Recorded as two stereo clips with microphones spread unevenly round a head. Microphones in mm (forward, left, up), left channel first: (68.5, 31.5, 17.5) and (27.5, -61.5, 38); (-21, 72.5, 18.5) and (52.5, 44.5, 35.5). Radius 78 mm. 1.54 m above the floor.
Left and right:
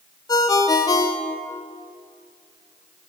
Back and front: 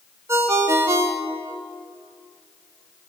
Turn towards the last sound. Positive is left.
turn(degrees=15)